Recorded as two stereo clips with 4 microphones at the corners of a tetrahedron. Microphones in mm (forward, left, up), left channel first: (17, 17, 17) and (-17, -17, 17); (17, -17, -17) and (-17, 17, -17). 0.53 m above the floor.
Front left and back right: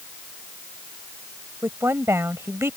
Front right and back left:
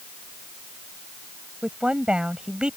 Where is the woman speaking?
155° right.